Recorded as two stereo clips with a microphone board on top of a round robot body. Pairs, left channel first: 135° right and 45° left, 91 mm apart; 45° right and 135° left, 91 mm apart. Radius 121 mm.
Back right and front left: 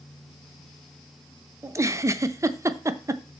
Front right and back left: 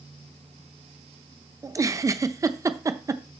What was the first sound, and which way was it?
A giggle, 90° left.